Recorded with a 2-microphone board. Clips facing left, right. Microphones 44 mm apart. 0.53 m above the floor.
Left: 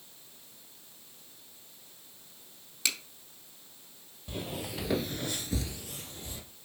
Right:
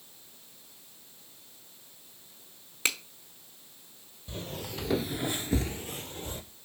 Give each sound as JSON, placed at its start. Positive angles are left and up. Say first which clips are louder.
{"t": 2.9, "sound": "a finger snap", "louder": "right 3 dB", "side_deg": -30, "distance_m": 0.9}
{"t": 4.3, "sound": "footsteps", "louder": "left 1 dB", "side_deg": 15, "distance_m": 1.1}